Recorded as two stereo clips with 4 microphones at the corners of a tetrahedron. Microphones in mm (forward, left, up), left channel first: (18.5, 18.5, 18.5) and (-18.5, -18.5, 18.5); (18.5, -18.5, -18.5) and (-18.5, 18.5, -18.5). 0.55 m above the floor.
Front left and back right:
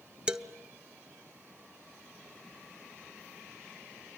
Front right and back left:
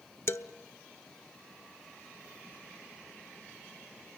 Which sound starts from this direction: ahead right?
A man speaking, at 0.3 s.